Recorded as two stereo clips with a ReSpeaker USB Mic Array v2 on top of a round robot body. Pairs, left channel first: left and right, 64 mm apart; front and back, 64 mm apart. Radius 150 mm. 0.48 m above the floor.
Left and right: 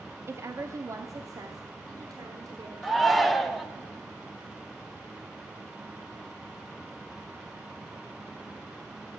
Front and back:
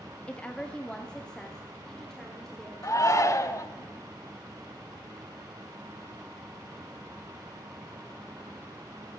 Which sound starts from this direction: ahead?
A shout, at 2.8 s.